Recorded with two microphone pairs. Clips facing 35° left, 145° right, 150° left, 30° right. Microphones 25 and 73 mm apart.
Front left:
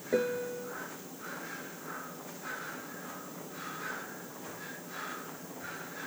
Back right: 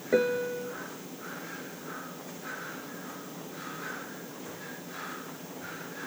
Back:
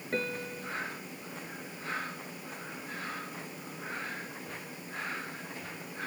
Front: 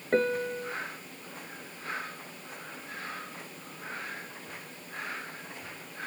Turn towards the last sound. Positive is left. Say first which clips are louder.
# back right 5 dB, front 8 dB
turn(degrees=-85)